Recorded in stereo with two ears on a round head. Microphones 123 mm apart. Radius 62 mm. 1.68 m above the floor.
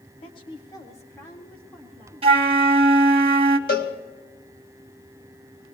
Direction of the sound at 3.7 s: 70° left (ahead or behind).